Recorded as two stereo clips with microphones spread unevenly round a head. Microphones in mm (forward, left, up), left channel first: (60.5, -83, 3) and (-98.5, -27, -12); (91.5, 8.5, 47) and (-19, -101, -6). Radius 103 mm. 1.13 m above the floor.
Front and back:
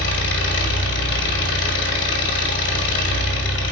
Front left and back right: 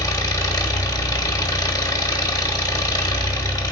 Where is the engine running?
15° right, 2 m.